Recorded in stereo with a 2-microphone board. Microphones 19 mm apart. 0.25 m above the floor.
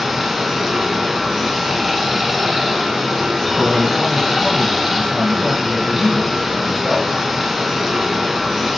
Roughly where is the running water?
Centre.